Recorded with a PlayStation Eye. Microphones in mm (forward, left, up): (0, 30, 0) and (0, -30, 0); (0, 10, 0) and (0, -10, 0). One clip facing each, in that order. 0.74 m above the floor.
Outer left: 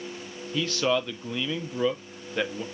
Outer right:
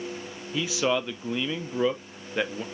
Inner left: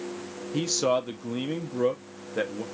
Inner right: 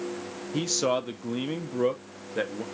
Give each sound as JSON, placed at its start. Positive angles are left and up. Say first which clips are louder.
{"t": 0.5, "sound": "a man speaking", "louder": "even, inner left 1 dB", "side_deg": -10, "distance_m": 0.6}